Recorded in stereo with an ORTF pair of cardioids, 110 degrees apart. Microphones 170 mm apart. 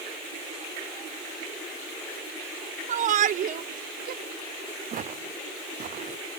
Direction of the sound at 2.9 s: 50° right.